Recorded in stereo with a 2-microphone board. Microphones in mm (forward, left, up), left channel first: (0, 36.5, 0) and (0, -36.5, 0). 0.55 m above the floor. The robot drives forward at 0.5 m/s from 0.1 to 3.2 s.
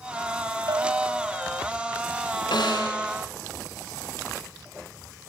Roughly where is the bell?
Right.